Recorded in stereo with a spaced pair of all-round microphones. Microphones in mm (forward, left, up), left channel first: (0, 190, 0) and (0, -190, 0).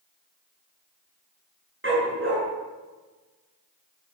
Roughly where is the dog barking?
Right.